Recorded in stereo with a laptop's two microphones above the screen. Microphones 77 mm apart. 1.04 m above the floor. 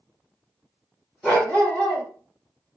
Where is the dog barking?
15° left (ahead or behind), 1.5 m.